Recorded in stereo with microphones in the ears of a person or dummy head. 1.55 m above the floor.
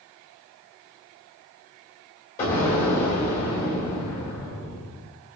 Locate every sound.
2.4 s an explosion: 40° left (ahead or behind), 1.6 m